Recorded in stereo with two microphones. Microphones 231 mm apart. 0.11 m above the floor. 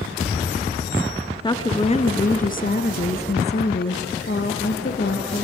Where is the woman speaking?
20° left (ahead or behind), 1.2 m; by 5.5 s 45° left (ahead or behind), 2.5 m.